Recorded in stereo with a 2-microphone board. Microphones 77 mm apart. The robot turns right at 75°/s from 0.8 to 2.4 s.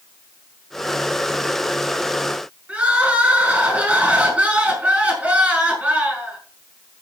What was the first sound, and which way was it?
Crying, 15° right (ahead or behind).